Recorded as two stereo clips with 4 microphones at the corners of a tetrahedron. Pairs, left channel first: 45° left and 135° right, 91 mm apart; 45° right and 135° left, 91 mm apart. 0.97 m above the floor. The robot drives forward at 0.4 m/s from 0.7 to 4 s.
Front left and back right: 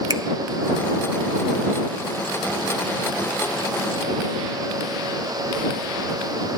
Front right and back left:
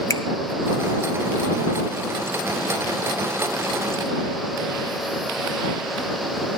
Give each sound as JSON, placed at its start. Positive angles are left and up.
{"t": 0.1, "sound": "a finger snap", "azimuth_deg": -95, "distance_m": 0.6}